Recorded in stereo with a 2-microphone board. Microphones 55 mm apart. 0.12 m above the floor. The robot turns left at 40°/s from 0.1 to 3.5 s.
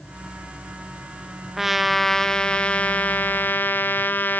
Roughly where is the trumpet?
Behind.